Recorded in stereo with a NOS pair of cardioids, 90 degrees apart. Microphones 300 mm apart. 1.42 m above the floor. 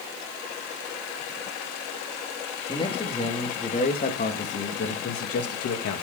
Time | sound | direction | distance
2.7 | a man speaking | 15° left | 2.5 m